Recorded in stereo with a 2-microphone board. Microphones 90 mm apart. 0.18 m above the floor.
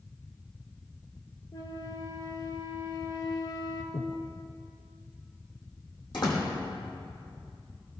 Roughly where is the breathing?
Left.